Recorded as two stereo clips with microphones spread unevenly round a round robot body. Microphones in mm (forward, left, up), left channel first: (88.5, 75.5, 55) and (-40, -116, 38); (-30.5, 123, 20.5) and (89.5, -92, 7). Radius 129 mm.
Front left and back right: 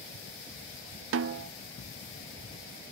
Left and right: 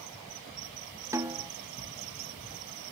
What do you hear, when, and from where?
1.1 s a snare drum: 135° right, 0.8 m